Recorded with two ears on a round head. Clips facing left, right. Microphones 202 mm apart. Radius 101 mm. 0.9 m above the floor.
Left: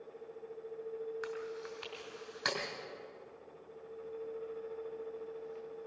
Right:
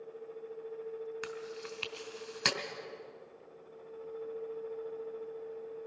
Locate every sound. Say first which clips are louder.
1.2 s chewing: left 1 dB; 45° right (ahead or behind), 2.5 m